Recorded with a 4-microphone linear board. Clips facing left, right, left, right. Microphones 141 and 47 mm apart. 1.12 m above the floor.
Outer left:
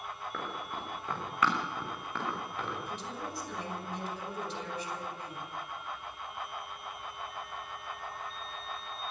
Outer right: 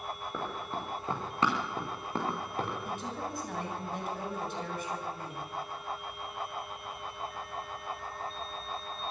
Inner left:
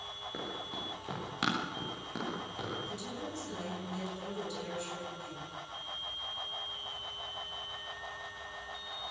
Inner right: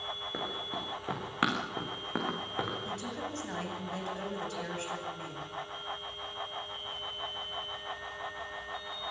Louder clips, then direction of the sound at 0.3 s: Outer right 3 dB, inner right 2 dB; 15° right (ahead or behind).